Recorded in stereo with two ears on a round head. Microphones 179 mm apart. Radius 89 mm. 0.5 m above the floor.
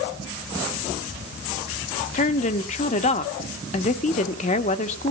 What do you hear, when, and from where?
2.1 s a woman speaking: 35° left (ahead or behind), 0.9 m